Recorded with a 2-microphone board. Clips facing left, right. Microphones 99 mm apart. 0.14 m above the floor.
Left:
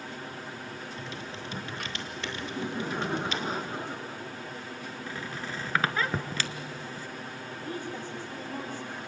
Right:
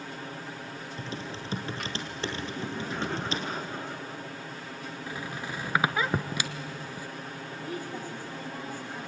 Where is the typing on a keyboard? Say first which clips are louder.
Right 2 dB; 35° right (ahead or behind), 2.5 m.